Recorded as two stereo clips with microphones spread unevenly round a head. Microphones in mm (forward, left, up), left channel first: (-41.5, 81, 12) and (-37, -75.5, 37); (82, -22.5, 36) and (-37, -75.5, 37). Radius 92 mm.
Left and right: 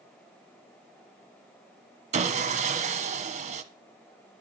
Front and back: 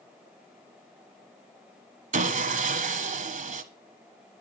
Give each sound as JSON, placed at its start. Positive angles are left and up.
{"t": 2.1, "sound": "sawing", "azimuth_deg": -135, "distance_m": 1.4}